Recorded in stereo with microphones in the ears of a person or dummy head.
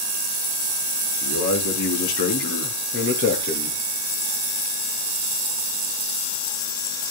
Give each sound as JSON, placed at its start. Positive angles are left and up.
{"t": 1.2, "sound": "a man speaking", "side_deg": 75, "distance_m": 5.0}